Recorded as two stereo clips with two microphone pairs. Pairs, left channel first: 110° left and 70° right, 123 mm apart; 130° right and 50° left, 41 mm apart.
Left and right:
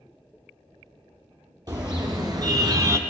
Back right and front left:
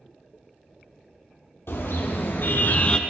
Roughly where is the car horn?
Behind right.